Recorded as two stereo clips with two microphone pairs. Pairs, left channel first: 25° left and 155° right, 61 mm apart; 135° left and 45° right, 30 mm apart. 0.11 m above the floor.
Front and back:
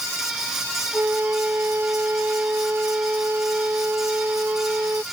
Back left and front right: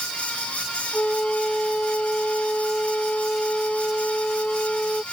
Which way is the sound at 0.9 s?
160° left.